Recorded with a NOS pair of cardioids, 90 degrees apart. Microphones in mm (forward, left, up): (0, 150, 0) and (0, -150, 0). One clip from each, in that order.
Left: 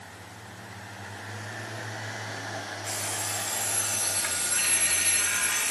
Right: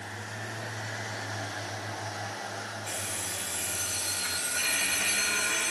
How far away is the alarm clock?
About 4.5 m.